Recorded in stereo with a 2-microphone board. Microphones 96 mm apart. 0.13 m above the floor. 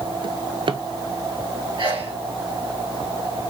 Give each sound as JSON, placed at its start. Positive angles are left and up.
{"t": 0.2, "sound": "a drawer", "side_deg": -60, "distance_m": 1.0}
{"t": 1.8, "sound": "a sneeze", "side_deg": -50, "distance_m": 2.5}